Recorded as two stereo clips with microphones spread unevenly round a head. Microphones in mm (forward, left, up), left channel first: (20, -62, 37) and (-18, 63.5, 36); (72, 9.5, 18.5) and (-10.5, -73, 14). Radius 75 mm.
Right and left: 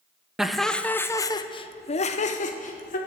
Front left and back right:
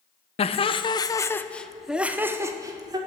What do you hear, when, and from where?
0.4 s laughter: 20° left, 1.0 m; by 3.0 s 85° right, 1.2 m